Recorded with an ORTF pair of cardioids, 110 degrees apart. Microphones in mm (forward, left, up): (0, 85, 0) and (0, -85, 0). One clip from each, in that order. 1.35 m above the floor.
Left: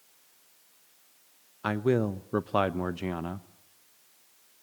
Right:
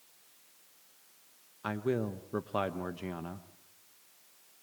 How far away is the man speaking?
About 0.8 m.